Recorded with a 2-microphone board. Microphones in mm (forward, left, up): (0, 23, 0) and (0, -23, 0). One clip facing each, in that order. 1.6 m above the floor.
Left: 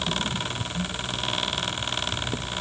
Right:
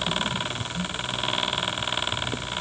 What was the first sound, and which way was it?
Only background noise.